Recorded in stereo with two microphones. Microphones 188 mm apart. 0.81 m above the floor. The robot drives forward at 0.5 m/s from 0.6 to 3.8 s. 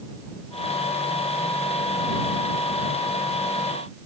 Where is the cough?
No cough in this recording.